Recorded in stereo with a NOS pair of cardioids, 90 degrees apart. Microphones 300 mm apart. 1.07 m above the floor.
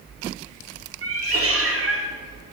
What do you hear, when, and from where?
1.0 s a cat meowing: 50° right, 1.7 m